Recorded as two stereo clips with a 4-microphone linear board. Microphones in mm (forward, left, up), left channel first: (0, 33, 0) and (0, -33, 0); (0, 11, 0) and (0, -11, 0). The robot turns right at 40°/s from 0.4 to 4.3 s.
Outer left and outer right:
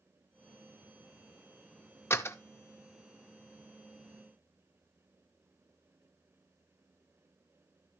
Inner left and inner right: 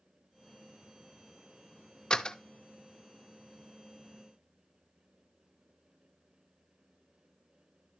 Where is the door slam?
40° left (ahead or behind), 0.5 m.